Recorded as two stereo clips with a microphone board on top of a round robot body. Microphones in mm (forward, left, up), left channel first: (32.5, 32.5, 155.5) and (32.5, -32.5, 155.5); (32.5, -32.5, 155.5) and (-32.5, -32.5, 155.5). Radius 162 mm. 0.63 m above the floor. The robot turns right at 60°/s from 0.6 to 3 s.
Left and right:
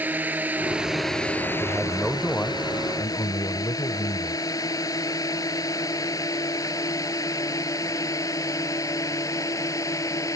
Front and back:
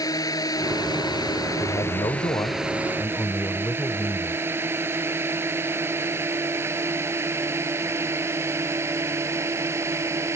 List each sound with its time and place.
0.0 s a drone: 25° right; by 10.4 s 130° left
1.6 s a man speaking: 20° right; by 4.4 s 60° left